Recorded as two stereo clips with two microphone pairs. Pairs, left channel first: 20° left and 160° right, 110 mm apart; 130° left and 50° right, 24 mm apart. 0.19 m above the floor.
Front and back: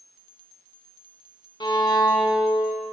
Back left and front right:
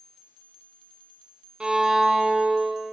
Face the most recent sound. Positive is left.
turn(degrees=-15)